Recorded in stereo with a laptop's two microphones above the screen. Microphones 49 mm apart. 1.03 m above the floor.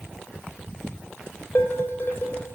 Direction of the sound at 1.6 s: 45° left (ahead or behind).